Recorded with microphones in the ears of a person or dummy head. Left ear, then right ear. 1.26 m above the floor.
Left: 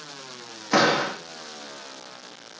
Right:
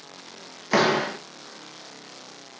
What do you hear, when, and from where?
0.7 s a door slam: 10° right (ahead or behind), 0.5 m